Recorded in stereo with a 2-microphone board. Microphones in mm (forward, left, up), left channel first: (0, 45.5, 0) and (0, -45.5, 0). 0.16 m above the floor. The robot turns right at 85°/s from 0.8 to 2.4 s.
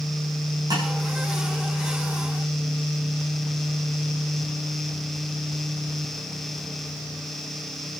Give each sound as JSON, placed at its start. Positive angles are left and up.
{"t": 0.7, "sound": "tapping", "side_deg": -50, "distance_m": 10.0}